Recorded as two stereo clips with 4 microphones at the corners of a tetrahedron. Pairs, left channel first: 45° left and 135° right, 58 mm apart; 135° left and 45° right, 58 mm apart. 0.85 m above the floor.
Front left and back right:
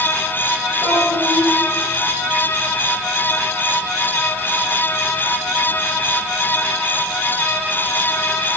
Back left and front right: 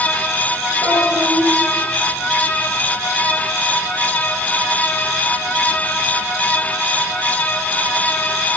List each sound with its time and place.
0.8 s a child speaking: 155° right, 6.5 m